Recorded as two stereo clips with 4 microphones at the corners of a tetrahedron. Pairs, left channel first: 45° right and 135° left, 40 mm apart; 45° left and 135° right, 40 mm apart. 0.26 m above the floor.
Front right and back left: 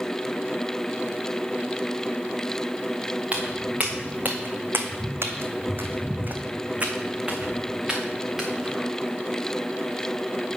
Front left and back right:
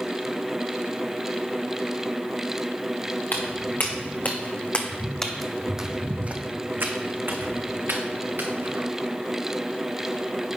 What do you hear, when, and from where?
3.3 s footsteps: 80° left, 1.6 m; by 8.8 s 145° right, 2 m